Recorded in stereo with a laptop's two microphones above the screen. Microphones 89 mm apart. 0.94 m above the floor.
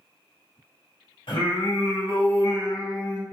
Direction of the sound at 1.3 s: 70° left (ahead or behind).